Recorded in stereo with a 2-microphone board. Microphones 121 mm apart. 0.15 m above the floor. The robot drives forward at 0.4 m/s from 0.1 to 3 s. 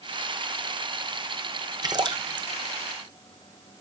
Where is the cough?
No cough in this recording.